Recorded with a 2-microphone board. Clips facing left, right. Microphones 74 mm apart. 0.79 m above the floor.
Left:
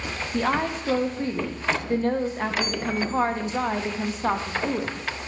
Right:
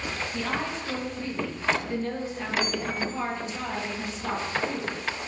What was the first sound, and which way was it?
A woman speaking, 45° left (ahead or behind).